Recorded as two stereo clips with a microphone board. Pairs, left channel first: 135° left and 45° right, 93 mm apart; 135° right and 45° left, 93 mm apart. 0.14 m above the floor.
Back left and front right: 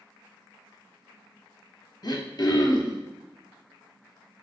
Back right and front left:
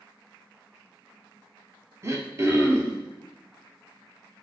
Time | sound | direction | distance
2.0 | throat clearing | 100° left | 0.6 m